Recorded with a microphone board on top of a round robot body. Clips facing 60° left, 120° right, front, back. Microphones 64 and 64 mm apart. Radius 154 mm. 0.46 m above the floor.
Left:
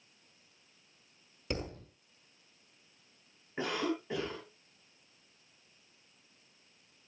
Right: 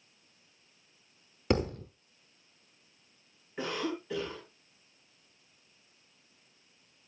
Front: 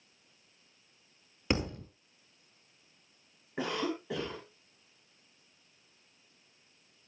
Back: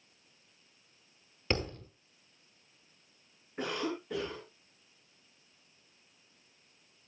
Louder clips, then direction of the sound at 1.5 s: Right 9 dB, front 2 dB; 75° right.